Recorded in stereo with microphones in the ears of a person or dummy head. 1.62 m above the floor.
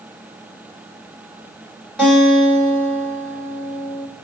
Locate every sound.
2.0 s a guitar: 5° left (ahead or behind), 2 m